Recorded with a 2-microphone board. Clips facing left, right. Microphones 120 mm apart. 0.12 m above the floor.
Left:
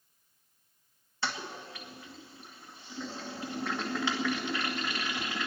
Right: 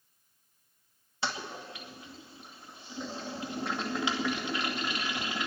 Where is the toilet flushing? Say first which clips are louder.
Right 1 dB; 15° right (ahead or behind), 1.7 m.